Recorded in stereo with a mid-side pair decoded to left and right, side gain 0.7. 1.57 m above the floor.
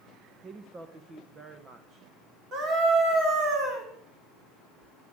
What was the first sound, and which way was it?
A woman speaking, 30° right.